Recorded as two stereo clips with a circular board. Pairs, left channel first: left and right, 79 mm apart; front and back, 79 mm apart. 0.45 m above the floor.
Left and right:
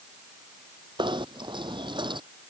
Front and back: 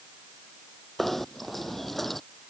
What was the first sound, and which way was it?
Knocking, 85° right.